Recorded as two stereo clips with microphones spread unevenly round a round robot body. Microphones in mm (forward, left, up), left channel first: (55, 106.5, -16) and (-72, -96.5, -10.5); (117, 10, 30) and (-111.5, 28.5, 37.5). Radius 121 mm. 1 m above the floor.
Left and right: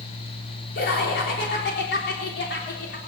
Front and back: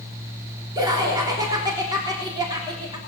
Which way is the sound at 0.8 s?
105° left.